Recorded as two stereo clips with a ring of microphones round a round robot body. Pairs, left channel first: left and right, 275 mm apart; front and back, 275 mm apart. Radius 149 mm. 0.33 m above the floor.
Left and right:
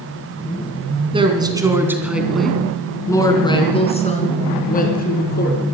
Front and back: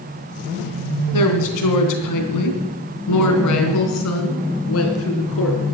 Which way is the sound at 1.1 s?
20° right.